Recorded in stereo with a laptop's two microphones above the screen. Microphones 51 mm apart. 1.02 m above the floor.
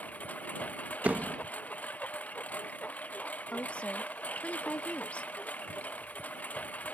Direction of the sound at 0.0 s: 30° left (ahead or behind).